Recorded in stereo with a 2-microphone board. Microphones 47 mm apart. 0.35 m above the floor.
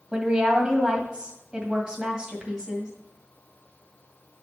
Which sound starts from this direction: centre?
A woman speaking, at 0.1 s.